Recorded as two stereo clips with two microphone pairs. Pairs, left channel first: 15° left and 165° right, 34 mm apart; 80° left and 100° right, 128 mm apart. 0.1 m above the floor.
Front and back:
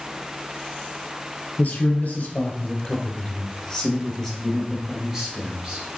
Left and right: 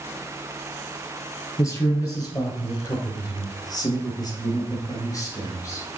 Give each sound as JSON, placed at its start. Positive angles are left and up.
{"t": 1.6, "sound": "a man speaking", "azimuth_deg": 25, "distance_m": 2.5}